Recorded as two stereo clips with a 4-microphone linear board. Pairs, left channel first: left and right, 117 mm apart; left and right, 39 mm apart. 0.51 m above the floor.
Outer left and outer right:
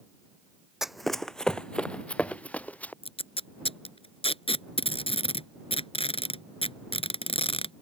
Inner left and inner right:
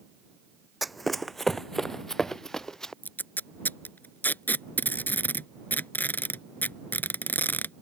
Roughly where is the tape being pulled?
Left.